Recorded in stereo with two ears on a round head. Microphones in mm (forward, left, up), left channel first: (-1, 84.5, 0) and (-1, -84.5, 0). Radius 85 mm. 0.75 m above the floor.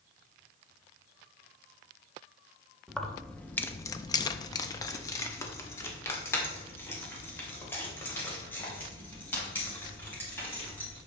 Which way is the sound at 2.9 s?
Centre (ahead or behind).